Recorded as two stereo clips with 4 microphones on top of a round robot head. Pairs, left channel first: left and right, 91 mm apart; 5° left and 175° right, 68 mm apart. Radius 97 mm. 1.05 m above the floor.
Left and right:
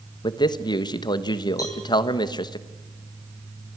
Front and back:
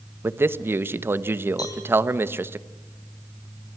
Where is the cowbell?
40° left, 8.5 m.